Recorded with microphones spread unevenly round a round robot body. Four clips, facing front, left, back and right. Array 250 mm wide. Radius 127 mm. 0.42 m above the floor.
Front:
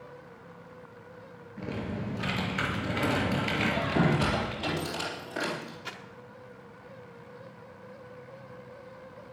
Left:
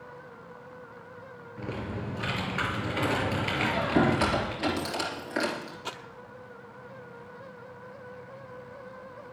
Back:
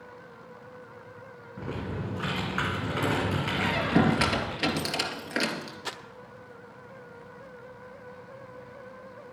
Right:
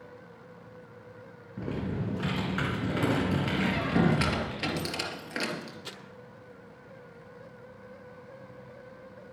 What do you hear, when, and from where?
1.6 s typing on a keyboard: 110° right, 3 m
3.6 s a squeak: 160° right, 3 m
5.8 s crumpling: 155° left, 0.7 m